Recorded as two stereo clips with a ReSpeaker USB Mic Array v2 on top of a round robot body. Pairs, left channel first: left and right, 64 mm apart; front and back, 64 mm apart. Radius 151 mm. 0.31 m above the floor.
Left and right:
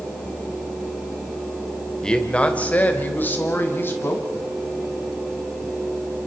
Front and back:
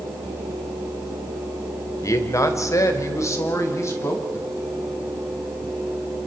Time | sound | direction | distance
2.0 | a man speaking | 15° left | 2 m